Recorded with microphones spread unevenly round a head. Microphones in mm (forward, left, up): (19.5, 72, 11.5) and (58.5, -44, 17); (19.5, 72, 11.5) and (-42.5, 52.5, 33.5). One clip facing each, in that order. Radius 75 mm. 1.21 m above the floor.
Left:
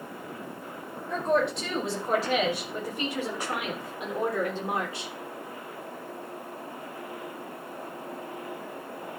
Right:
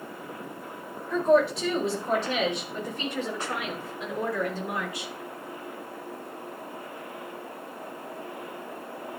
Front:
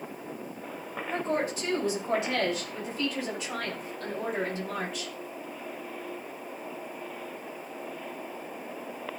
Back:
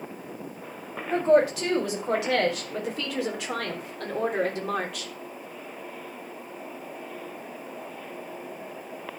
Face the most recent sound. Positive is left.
turn(degrees=175)